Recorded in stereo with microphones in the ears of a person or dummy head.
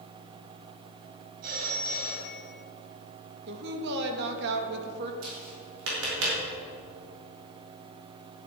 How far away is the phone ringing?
About 5 m.